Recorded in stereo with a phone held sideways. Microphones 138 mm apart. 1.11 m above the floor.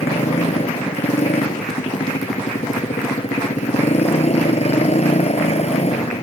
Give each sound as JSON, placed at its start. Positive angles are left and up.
{"t": 0.0, "sound": "a motorcycle", "side_deg": 50}